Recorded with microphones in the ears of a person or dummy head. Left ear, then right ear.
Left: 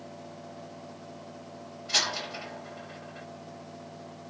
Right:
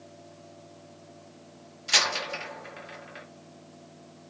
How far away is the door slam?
About 4 m.